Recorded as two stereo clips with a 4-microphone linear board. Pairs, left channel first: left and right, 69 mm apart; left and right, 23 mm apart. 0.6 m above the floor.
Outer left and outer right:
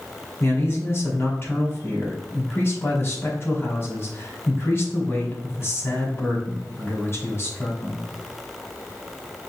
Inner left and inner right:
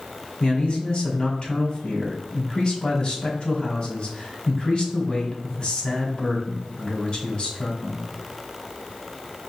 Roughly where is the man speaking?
Left.